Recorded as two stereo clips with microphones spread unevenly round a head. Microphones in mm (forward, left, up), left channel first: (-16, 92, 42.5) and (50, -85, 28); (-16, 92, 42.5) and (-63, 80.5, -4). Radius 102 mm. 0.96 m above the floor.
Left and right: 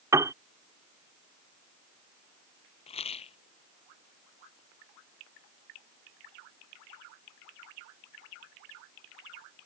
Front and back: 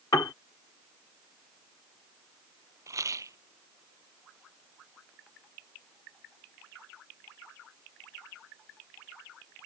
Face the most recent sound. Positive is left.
turn(degrees=170)